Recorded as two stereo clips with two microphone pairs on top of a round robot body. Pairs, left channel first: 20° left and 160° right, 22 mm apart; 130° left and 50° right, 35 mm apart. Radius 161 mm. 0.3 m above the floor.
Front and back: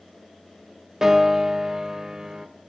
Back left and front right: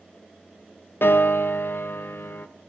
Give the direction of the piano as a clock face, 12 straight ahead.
8 o'clock.